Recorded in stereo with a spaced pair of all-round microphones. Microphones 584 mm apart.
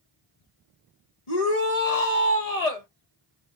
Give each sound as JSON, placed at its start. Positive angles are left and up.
{"t": 1.3, "sound": "a shout", "side_deg": 90, "distance_m": 1.6}